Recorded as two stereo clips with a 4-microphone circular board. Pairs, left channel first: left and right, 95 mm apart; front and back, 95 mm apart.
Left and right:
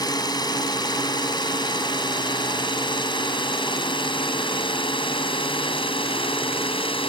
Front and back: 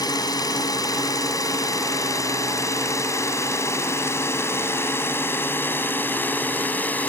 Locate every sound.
0.0 s a drone: 45° left; by 7.1 s 75° left